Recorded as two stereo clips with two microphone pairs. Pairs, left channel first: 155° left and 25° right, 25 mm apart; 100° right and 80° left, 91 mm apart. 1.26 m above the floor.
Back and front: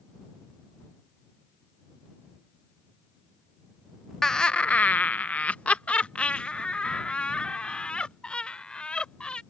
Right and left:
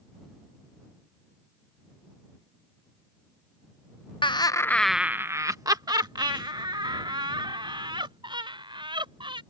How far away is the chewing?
I don't hear chewing.